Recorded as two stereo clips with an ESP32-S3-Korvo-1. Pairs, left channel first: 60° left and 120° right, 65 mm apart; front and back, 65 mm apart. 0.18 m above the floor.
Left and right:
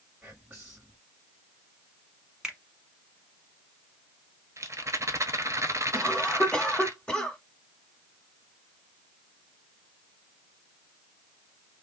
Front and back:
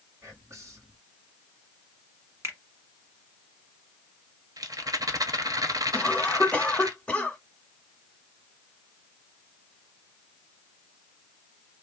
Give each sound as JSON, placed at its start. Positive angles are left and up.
{"t": 0.2, "sound": "whispering", "azimuth_deg": 175, "distance_m": 1.5}
{"t": 2.4, "sound": "a finger snap", "azimuth_deg": 165, "distance_m": 1.2}
{"t": 4.6, "sound": "a rattle", "azimuth_deg": -160, "distance_m": 0.9}
{"t": 5.9, "sound": "a cough", "azimuth_deg": 15, "distance_m": 1.1}